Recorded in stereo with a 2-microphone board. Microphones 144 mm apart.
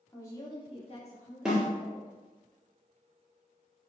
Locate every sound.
0.1 s a woman speaking: 20° left (ahead or behind), 1.3 m; by 2.1 s 60° left (ahead or behind), 1.8 m
1.4 s a snare drum: 5° right (ahead or behind), 1.4 m